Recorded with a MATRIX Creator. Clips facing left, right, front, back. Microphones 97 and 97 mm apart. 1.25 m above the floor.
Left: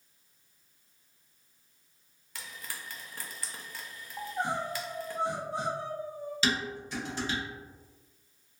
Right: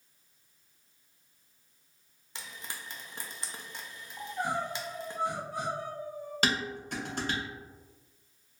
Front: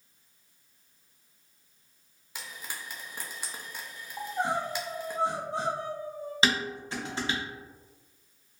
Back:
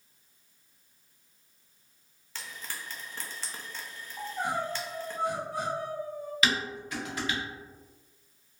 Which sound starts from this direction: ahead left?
Crying, at 4.2 s.